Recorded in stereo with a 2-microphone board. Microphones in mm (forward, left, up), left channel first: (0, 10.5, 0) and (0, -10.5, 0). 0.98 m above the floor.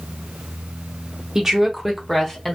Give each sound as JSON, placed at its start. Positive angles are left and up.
{"t": 1.4, "sound": "a woman speaking", "side_deg": -20, "distance_m": 0.8}